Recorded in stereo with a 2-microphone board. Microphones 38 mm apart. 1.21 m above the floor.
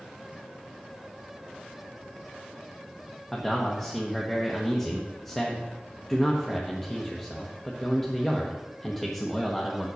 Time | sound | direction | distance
3.3 | a man speaking | 5° left (ahead or behind) | 1.2 m